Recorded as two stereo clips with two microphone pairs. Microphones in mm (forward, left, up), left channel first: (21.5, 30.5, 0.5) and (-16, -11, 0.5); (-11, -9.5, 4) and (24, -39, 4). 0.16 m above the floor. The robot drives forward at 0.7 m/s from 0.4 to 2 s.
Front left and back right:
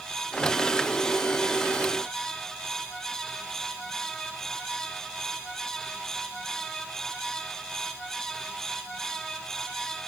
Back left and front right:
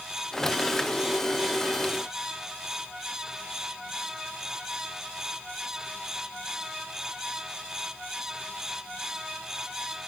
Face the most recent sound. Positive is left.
No sound to turn to.